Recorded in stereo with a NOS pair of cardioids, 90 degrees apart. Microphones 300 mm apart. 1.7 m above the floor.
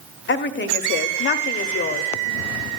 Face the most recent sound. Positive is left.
turn(degrees=40)